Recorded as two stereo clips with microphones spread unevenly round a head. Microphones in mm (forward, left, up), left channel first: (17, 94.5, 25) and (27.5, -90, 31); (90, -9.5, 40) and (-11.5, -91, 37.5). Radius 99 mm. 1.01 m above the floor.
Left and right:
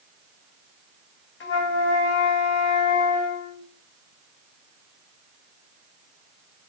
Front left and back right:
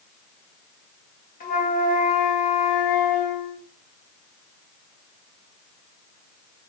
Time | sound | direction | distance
1.4 | a flute | 70° left | 0.8 m